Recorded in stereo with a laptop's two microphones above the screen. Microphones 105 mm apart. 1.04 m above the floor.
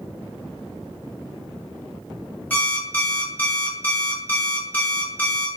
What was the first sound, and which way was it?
An alarm clock, 15° left (ahead or behind).